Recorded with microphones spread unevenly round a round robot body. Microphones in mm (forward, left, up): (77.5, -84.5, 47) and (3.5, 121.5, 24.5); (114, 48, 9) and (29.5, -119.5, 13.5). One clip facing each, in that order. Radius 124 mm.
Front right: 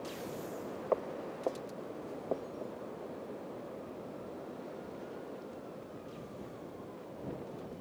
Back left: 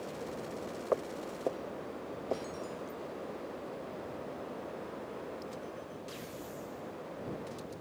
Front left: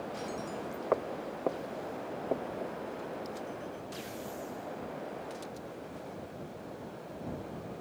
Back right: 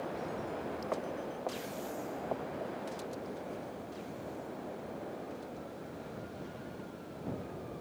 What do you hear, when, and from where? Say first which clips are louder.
0.9 s footsteps: back left 1 dB, front left 9 dB; 35° left; by 2.8 s 10° left